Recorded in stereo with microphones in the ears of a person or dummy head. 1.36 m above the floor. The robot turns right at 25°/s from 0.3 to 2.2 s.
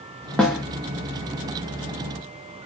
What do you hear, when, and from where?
0.4 s a snare drum: 5° left (ahead or behind), 0.7 m